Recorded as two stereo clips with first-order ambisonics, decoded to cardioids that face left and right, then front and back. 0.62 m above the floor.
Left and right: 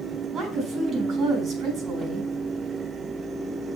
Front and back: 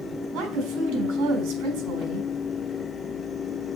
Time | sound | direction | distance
0.3 | a woman speaking | 155° right | 4 m